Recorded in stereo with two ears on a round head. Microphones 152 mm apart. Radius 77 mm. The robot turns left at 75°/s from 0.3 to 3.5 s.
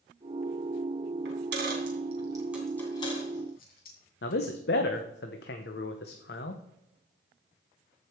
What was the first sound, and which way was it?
A dropped coin, 65° right (ahead or behind).